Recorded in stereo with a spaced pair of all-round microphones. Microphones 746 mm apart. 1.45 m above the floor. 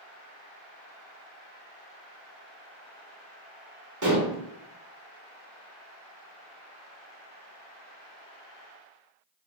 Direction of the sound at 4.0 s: 25° right (ahead or behind).